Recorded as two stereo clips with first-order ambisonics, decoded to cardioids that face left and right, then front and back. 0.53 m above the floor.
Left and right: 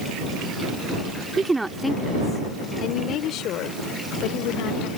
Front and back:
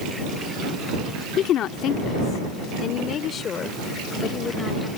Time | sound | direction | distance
1.4 | a woman speaking | 25° right | ?